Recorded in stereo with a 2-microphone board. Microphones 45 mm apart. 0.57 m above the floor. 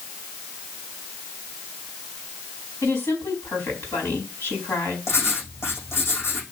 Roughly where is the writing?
Left.